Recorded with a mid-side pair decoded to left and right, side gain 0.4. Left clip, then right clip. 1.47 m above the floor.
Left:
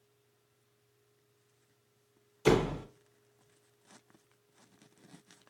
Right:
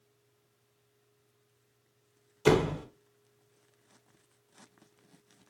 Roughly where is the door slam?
Ahead.